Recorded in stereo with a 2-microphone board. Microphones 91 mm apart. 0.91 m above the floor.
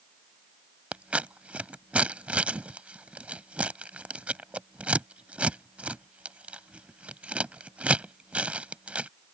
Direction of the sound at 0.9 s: 15° right (ahead or behind).